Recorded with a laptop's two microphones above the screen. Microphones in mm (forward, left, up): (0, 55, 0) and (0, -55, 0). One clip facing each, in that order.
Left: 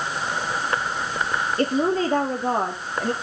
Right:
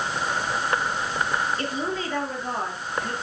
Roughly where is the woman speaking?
Left.